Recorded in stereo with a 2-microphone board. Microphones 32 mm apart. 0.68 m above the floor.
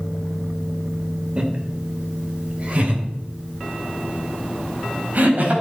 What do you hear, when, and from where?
1.4 s laughter: 35° right (ahead or behind), 3 m; by 5.5 s 60° right (ahead or behind), 5 m